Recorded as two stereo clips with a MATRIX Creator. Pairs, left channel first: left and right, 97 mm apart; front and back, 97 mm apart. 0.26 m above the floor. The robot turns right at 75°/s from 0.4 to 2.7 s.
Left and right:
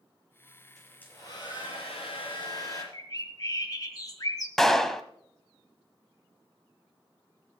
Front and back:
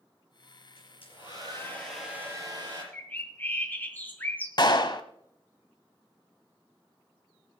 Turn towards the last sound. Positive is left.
turn(degrees=5)